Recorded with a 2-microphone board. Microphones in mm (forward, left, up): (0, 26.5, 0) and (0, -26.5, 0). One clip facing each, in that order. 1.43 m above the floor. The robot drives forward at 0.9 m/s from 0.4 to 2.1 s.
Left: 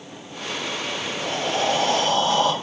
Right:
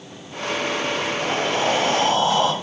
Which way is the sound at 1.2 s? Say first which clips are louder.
Even; 20° right (ahead or behind).